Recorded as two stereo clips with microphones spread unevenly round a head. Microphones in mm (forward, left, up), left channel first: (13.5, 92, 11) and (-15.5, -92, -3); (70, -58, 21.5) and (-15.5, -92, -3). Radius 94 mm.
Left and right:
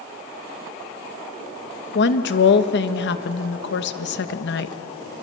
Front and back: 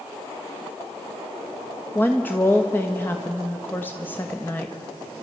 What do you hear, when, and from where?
1.9 s a woman speaking: 105° left, 1.1 m